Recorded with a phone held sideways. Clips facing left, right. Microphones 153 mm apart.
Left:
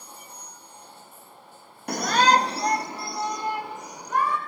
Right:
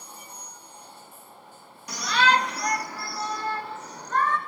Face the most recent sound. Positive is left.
turn(degrees=10)  # may be behind; listen again after turning